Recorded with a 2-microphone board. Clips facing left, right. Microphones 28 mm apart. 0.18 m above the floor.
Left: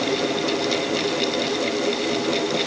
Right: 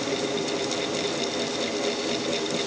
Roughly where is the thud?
I don't hear a thud.